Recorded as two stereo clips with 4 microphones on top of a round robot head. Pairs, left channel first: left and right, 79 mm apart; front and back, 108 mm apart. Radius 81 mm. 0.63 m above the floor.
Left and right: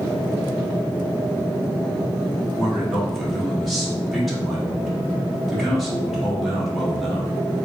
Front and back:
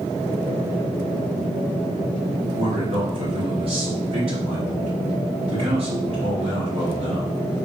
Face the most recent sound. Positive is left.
turn(degrees=180)